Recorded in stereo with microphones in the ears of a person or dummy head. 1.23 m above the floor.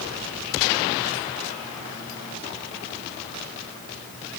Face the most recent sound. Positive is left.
No sound to turn to.